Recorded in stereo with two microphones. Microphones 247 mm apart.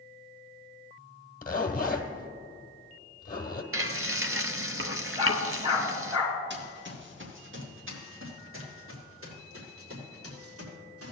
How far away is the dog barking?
About 3 m.